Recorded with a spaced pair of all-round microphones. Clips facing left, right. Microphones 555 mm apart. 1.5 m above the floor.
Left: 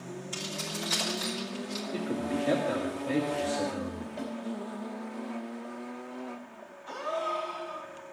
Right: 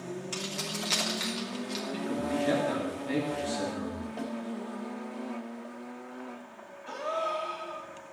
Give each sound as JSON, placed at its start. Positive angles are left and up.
{"t": 0.3, "sound": "keys jangling", "side_deg": -85, "distance_m": 3.0}
{"t": 1.9, "sound": "a man speaking", "side_deg": -15, "distance_m": 2.5}
{"t": 4.2, "sound": "a snare drum", "side_deg": 0, "distance_m": 3.5}
{"t": 6.9, "sound": "a gasp", "side_deg": -55, "distance_m": 2.5}